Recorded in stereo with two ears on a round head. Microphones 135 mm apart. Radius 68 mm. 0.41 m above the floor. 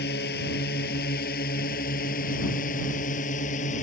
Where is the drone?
70° left (ahead or behind); by 3.8 s 50° left (ahead or behind).